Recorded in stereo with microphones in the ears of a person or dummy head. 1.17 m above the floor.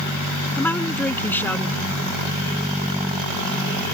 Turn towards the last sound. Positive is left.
turn(degrees=5)  # may be behind; listen again after turning